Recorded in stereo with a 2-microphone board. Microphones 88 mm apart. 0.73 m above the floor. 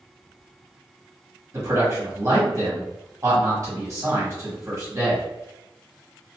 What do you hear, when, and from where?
1.5 s a man speaking: 35° right (ahead or behind), 1.2 m